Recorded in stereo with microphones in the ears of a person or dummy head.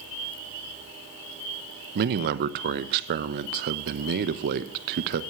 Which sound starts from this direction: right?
A man speaking, at 1.9 s.